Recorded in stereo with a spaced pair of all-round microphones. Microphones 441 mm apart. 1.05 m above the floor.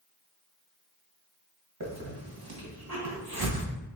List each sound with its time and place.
1.8 s a hiss: 55° right (ahead or behind), 1.3 m